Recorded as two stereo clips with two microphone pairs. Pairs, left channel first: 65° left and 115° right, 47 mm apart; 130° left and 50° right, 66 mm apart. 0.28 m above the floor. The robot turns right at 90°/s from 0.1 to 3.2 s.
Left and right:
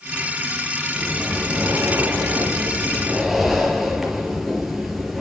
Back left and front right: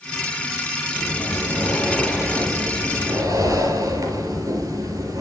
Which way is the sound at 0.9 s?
130° left.